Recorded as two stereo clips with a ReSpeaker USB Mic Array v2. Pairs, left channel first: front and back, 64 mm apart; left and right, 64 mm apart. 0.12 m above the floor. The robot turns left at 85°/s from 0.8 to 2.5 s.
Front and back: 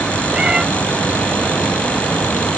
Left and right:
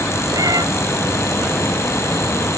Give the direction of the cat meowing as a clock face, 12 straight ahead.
4 o'clock.